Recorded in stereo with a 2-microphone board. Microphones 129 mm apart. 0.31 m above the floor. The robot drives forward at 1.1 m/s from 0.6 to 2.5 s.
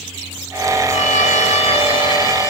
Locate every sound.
0.9 s a violin: 60° left (ahead or behind), 0.8 m; by 2.5 s 30° left (ahead or behind), 1.6 m